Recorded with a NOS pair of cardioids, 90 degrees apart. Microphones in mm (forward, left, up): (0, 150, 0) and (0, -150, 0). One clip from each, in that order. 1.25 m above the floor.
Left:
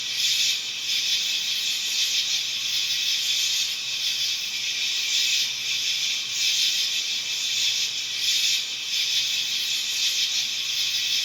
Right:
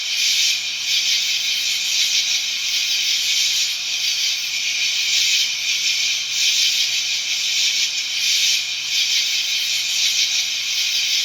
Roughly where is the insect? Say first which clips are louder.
Right 5 dB; ahead right.